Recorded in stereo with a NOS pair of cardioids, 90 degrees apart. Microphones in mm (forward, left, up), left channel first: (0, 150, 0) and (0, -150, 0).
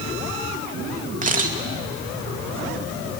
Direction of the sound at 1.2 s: 25° right.